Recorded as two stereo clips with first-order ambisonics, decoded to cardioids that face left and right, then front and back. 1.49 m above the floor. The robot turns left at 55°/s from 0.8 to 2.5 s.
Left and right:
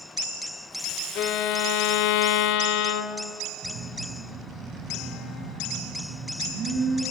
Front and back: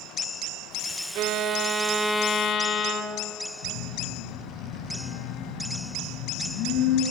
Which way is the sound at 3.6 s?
30° right.